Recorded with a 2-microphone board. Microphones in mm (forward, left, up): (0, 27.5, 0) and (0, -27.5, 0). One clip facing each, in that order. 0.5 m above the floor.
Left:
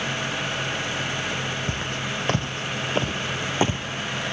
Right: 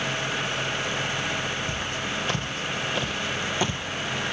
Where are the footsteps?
45° left (ahead or behind), 1.7 m; by 3.8 s 20° left (ahead or behind), 0.8 m.